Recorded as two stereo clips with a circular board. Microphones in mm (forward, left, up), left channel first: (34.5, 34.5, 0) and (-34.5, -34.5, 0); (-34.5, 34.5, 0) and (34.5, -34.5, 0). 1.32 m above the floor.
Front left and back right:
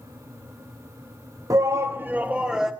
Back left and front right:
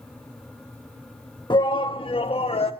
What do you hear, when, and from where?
1.5 s a shout: 175° left, 1.5 m; by 2.7 s 140° left, 1.9 m